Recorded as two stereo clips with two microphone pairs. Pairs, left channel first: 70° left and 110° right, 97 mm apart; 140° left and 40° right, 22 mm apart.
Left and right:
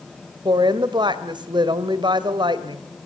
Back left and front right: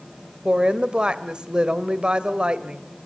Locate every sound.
0.5 s a woman speaking: 75° right, 2 m